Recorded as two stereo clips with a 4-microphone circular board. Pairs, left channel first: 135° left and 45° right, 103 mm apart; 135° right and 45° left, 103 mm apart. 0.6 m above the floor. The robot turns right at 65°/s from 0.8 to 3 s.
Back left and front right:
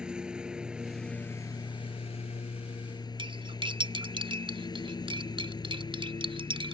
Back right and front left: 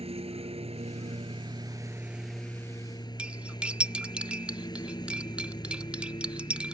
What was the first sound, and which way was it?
A lawn mower, 35° left.